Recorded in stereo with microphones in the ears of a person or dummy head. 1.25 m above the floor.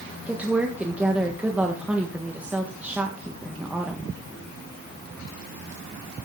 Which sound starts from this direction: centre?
A woman speaking, at 0.3 s.